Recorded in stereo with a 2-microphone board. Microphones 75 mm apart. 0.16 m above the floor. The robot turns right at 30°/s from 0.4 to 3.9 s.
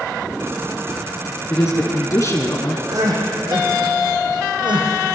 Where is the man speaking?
55° left, 2.5 m; by 2.8 s 95° left, 2.5 m.